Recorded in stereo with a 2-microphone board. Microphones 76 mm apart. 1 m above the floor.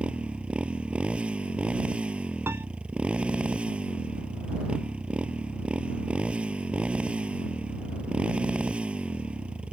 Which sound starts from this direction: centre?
A motorcycle, at 0.0 s.